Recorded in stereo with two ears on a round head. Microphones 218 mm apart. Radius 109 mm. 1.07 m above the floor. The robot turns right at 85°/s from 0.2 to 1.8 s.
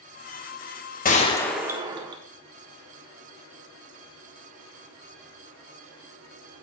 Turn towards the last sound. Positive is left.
turn(degrees=-160)